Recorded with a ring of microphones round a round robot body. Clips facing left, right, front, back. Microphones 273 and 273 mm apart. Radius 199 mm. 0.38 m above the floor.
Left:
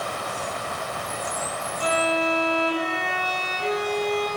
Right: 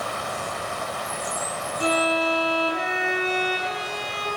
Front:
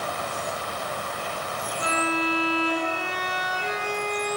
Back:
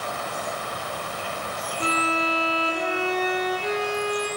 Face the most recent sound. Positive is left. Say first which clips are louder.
# right 1 dB, even
turn(degrees=-135)